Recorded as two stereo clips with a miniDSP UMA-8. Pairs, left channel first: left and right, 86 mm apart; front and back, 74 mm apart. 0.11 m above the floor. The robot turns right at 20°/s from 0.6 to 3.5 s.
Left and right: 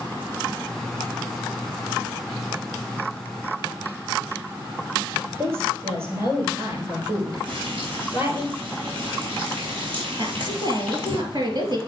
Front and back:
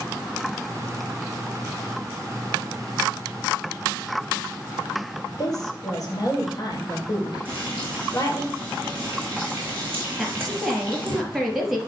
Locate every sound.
5.4 s a woman speaking: 30° right, 3 m
7.5 s frying: 115° right, 3 m
10.2 s a woman speaking: 95° right, 2.5 m